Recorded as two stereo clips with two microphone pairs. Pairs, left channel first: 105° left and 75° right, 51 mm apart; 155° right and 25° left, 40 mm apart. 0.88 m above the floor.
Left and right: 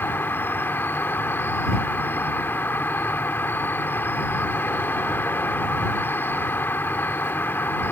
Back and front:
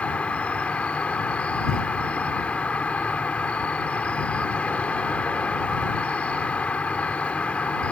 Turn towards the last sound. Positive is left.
turn(degrees=150)